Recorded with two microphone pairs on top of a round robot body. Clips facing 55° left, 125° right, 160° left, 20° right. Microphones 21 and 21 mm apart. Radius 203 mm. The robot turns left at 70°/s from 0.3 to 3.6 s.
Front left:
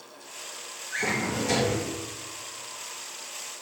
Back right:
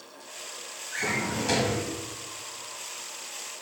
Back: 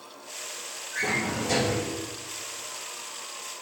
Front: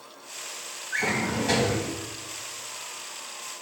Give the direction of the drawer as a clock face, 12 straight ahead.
1 o'clock.